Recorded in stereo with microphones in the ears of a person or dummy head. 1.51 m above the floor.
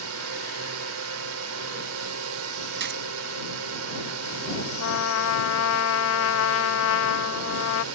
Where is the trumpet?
75° left (ahead or behind).